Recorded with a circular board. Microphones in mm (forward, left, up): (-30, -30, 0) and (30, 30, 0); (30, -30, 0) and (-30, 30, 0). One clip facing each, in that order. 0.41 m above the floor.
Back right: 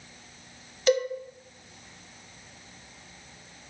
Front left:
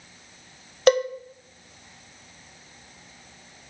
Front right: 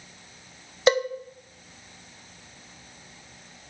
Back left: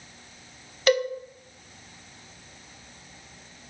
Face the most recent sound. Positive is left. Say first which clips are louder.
# front left 5 dB, front right 1 dB
turn(degrees=15)